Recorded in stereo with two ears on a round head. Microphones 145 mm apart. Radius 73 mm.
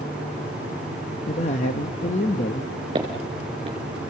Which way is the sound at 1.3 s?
40° left (ahead or behind).